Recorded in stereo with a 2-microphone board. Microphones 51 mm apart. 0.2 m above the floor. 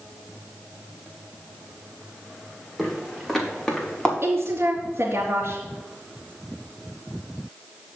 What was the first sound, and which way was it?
Footsteps, centre (ahead or behind).